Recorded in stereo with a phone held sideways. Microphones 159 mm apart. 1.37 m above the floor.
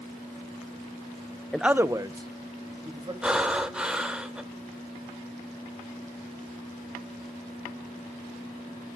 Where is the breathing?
5° right (ahead or behind), 1.1 m.